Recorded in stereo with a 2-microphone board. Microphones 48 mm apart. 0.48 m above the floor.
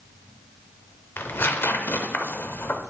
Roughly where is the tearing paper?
Left.